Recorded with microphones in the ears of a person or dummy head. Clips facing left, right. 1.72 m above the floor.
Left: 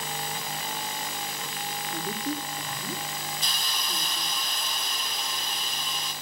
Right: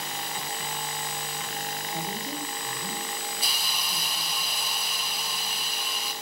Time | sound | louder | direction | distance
1.9 | a woman speaking | left 4 dB | 60° left (ahead or behind) | 3.5 m
3.4 | a hiss | even | 10° right (ahead or behind) | 3.5 m